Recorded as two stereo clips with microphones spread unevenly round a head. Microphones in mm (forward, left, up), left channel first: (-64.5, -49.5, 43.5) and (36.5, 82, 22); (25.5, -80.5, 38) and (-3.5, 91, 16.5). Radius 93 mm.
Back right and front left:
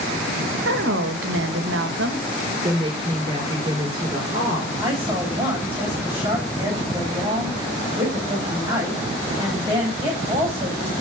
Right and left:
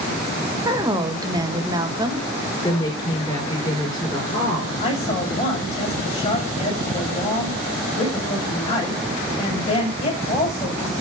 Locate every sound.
0.7 s a woman speaking: 30° left, 2 m
2.6 s a woman speaking: 15° right, 6 m
4.8 s a woman speaking: 25° right, 7.5 m